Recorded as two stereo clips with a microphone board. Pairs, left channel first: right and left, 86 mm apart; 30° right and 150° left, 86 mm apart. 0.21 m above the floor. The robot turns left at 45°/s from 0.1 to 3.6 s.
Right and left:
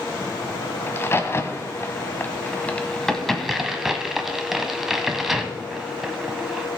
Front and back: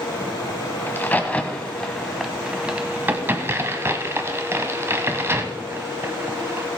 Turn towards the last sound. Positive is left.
turn(degrees=175)